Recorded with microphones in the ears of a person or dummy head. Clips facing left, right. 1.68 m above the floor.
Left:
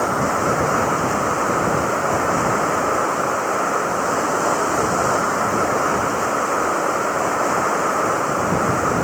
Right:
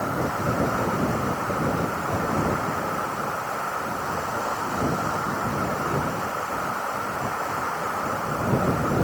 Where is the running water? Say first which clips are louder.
Left 6 dB; 65° left (ahead or behind).